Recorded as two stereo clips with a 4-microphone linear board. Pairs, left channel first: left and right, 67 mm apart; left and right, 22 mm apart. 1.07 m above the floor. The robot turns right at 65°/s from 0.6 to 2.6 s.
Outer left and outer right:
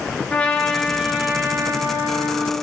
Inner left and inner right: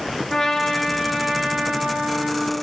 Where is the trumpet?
160° left, 2.5 m; by 2.5 s 70° right, 2.5 m.